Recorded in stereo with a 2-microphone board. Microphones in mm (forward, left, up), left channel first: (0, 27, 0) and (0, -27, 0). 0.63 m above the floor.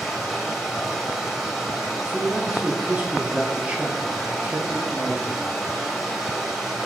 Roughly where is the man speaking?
Right.